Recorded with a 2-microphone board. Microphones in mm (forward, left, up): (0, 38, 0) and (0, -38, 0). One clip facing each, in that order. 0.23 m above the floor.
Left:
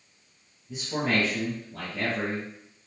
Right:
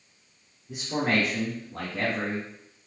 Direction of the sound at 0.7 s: 60° right (ahead or behind).